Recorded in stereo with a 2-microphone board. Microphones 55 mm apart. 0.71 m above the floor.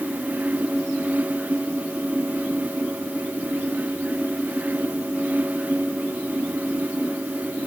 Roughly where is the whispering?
I don't hear whispering.